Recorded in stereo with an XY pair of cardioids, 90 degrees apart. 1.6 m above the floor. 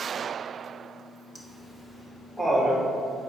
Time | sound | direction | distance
1.4 | laughter | 15° left | 2.5 m